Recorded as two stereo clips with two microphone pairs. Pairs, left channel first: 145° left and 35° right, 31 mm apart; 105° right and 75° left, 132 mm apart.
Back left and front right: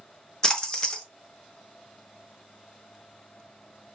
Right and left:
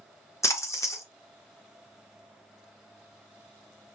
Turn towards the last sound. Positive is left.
turn(degrees=-170)